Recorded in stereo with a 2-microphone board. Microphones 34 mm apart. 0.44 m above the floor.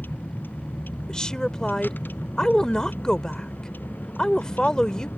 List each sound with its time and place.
0.0 s a vehicle: 80° left
1.1 s a woman speaking: 20° left (ahead or behind)